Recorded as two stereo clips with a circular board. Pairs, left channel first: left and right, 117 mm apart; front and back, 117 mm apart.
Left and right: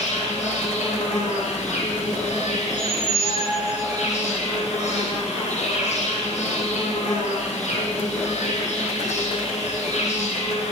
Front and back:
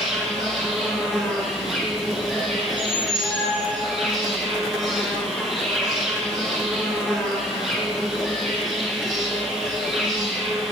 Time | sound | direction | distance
0.0 | an insect | 95° left | 4 m
2.7 | a squeak | 85° left | 4 m